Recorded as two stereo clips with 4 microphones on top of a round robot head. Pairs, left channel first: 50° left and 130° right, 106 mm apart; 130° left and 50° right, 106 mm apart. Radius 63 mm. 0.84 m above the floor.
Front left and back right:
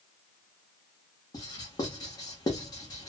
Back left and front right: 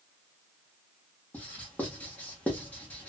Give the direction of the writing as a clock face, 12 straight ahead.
10 o'clock.